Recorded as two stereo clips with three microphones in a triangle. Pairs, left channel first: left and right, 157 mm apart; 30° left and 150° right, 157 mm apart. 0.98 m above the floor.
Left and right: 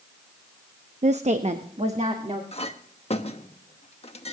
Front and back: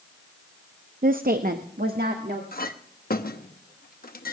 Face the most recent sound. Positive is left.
turn(degrees=45)